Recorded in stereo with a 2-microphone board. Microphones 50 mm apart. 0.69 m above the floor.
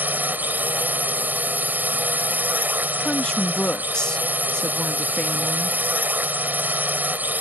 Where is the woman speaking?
20° left (ahead or behind).